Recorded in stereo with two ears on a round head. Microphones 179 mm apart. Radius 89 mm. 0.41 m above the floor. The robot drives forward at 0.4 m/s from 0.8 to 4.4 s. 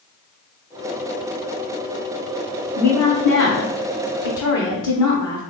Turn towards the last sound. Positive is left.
turn(degrees=20)  # may be behind; listen again after turning